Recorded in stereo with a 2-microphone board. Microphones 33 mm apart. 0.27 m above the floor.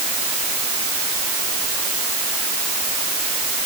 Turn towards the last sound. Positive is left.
No sound to turn to.